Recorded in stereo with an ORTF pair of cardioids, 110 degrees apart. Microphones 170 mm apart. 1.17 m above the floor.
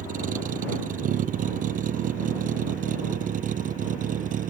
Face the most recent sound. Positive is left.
turn(degrees=-55)